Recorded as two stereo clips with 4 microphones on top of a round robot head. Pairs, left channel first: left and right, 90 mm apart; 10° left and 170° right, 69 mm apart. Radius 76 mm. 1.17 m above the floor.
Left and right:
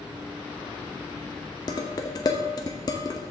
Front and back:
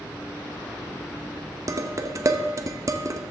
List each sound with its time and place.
1.7 s dishes clattering: 145° left, 0.9 m